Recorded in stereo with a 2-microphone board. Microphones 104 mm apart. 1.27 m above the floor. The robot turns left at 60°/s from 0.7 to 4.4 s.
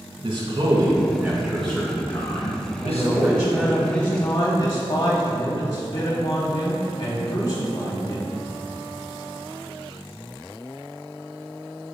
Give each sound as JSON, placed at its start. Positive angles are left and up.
{"t": 0.2, "sound": "a man speaking", "azimuth_deg": -130, "distance_m": 1.7}
{"t": 2.8, "sound": "a man speaking", "azimuth_deg": -135, "distance_m": 1.0}